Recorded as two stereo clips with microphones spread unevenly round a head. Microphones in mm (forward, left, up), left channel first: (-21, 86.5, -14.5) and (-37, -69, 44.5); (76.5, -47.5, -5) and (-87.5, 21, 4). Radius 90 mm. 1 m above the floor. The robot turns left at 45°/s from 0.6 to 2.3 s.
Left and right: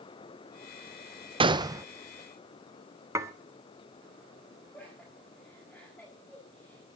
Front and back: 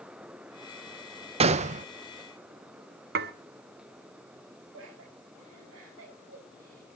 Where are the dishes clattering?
170° right, 1.4 m.